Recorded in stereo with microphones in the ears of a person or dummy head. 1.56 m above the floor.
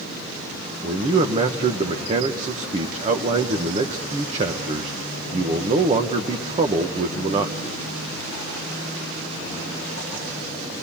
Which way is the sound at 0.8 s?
35° right (ahead or behind).